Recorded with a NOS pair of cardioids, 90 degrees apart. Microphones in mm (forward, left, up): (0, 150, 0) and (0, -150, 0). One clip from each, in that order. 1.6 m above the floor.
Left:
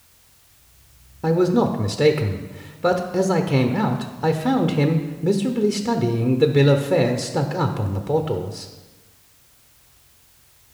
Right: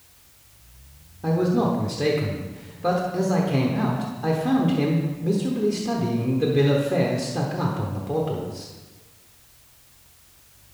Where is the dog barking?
I don't hear a dog barking.